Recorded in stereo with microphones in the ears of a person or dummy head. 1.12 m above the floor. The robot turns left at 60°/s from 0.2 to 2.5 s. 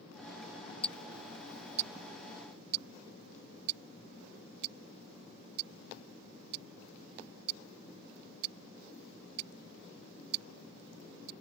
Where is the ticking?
10° left (ahead or behind); by 11.3 s 65° right (ahead or behind).